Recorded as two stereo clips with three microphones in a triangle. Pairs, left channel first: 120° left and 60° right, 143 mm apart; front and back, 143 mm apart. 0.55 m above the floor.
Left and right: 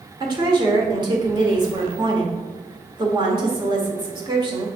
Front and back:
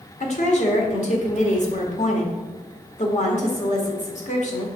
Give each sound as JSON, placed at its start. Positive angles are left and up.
{"t": 0.2, "sound": "a woman speaking", "azimuth_deg": -10, "distance_m": 1.5}